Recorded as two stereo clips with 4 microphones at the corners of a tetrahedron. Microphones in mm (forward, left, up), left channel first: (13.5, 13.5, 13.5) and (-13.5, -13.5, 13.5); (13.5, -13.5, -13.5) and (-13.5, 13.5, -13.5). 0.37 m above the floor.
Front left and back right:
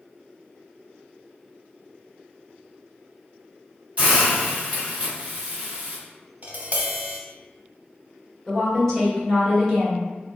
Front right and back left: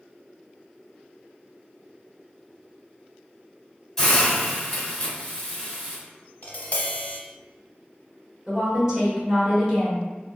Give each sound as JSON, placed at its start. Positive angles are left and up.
{"t": 4.0, "sound": "a hiss", "azimuth_deg": -120, "distance_m": 1.7}
{"t": 6.4, "sound": "tapping", "azimuth_deg": -90, "distance_m": 0.6}
{"t": 8.5, "sound": "a woman speaking", "azimuth_deg": 90, "distance_m": 1.2}